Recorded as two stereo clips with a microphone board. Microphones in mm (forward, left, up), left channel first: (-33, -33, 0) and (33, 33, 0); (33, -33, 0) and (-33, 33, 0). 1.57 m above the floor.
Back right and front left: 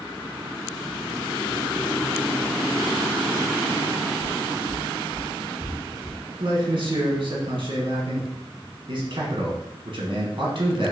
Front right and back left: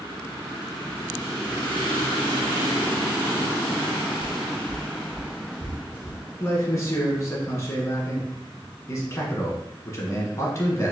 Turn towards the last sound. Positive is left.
turn(degrees=10)